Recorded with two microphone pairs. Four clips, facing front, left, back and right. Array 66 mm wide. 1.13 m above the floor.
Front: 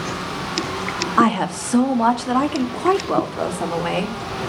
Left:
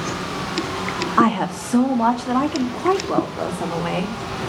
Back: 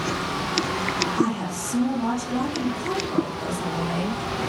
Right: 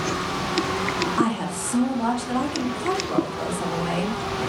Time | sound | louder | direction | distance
1.2 | a woman speaking | left 6 dB, front 7 dB | 35° left | 1.8 m